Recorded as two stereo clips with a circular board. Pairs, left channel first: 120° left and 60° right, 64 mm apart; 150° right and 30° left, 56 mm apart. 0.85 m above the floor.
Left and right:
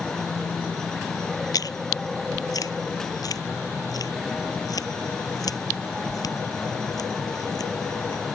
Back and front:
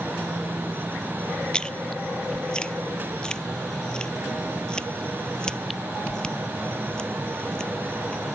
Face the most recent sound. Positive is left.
turn(degrees=135)